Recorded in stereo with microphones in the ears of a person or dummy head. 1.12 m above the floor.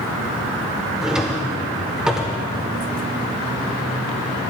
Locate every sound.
1.0 s a drawer: 5° right (ahead or behind), 0.9 m